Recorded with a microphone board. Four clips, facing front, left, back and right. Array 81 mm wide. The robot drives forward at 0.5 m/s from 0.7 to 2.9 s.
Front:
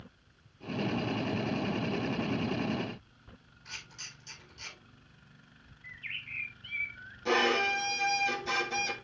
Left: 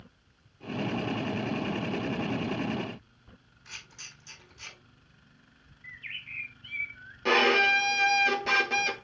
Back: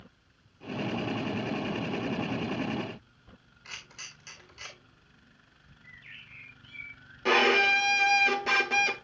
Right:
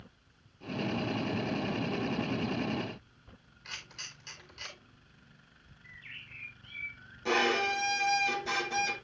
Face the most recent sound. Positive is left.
turn(degrees=150)